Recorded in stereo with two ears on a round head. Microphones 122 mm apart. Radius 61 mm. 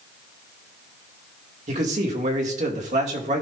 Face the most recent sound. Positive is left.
turn(degrees=-55)  # may be behind; listen again after turning